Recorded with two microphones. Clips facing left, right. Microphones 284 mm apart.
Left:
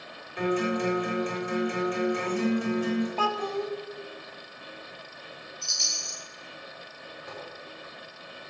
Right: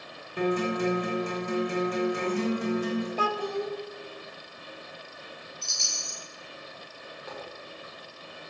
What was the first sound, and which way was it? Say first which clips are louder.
A guitar: even; 50° right (ahead or behind).